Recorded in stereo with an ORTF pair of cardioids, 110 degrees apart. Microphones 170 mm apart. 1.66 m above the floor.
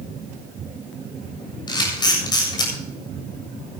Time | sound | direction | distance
1.7 | a camera shutter | 25° left | 7.5 m